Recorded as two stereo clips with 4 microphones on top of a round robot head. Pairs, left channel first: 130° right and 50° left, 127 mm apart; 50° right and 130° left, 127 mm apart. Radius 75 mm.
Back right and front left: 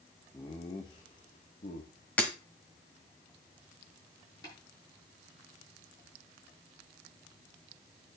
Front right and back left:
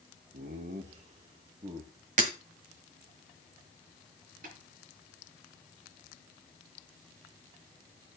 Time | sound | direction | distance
0.3 | laughter | 160° left | 1.4 m
2.2 | breaking glass | 150° left | 1.2 m
4.4 | tapping | 165° left | 7 m